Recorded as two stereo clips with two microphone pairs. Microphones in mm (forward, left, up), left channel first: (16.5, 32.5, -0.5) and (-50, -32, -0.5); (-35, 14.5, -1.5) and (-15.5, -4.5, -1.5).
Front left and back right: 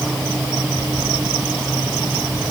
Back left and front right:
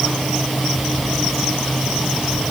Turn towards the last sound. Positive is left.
No sound to turn to.